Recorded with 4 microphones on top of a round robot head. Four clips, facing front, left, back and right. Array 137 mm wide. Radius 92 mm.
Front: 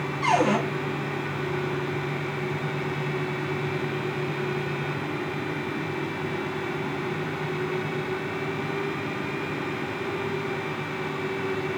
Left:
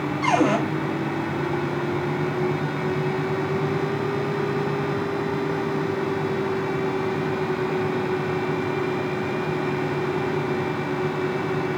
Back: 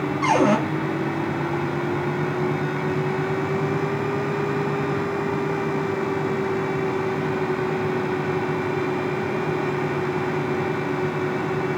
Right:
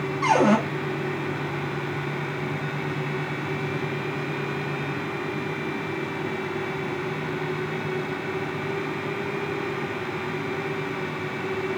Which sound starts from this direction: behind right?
A cupboard door, at 0.2 s.